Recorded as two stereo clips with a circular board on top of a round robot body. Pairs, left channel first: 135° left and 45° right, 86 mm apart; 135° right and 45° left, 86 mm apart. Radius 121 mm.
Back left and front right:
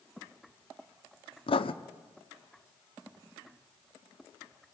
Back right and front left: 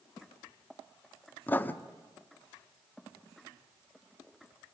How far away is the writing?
About 0.9 m.